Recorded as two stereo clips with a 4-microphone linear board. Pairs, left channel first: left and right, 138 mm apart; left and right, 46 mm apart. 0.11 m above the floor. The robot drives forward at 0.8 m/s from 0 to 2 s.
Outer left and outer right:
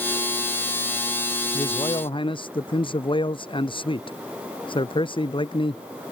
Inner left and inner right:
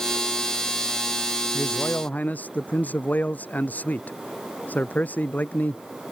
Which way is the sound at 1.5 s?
35° left (ahead or behind).